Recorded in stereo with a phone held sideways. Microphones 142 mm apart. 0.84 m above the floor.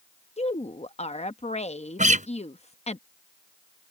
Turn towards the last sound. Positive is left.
turn(degrees=-65)  # may be behind; listen again after turning